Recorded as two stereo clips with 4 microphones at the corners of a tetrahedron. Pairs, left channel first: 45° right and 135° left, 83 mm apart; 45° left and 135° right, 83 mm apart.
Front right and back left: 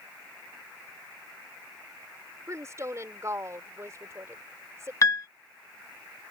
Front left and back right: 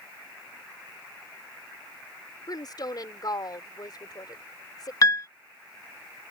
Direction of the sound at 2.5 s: 80° left.